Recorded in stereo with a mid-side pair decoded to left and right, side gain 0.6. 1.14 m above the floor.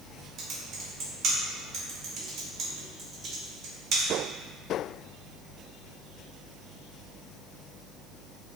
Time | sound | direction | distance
0.4 | typing on a keyboard | 45° right | 1.0 m